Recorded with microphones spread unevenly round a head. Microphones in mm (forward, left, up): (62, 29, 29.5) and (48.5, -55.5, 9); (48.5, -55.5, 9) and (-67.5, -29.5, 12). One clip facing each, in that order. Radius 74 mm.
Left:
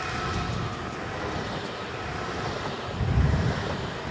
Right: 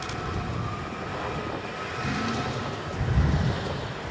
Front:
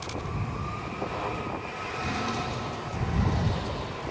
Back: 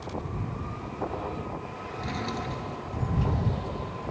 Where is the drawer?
95° right.